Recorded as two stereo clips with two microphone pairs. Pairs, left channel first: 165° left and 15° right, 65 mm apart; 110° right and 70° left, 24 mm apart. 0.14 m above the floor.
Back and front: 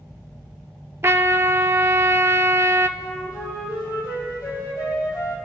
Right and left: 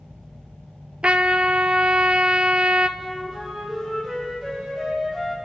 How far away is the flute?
About 3.5 m.